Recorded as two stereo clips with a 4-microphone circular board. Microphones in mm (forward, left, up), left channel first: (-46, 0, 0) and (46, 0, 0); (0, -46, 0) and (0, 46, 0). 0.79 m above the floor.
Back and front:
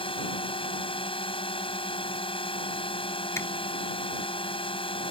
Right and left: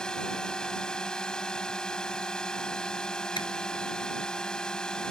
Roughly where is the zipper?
Behind right.